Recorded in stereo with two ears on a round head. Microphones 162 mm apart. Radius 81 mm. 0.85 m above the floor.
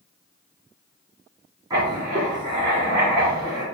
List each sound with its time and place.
1.7 s writing: 20° right (ahead or behind), 3.5 m